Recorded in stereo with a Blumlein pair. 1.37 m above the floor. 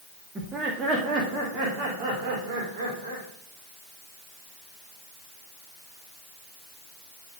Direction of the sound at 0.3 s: 15° right.